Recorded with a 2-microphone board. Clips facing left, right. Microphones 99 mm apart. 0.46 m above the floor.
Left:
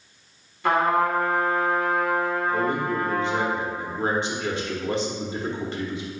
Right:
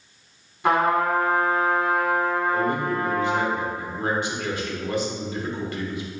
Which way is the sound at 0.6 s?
20° right (ahead or behind).